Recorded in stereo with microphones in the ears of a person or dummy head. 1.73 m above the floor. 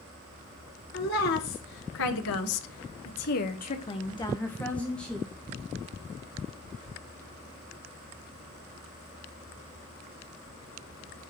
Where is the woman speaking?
55° left (ahead or behind), 2.5 m; by 5.3 s centre (ahead or behind), 2.5 m.